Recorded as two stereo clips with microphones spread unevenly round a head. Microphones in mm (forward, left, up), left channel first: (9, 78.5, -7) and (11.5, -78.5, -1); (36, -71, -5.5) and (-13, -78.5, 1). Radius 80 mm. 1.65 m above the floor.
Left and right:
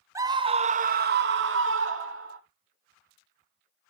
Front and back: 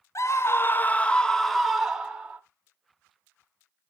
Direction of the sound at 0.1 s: 15° right.